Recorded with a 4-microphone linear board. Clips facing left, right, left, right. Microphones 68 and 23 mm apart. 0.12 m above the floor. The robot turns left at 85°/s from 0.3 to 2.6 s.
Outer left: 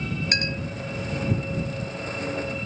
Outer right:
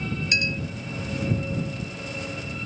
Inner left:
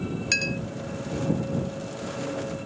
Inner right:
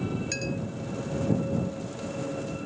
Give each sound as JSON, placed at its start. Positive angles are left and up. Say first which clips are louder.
{"t": 0.3, "sound": "a clink", "louder": "outer right 3 dB, inner left 6 dB", "side_deg": 50}